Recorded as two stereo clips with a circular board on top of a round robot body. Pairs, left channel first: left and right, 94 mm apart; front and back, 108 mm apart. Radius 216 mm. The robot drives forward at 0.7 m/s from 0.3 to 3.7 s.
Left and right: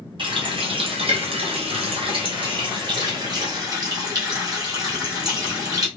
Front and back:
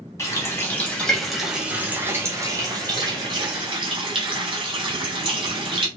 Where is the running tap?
60° right, 1.6 m; by 5.9 s 140° right, 2 m.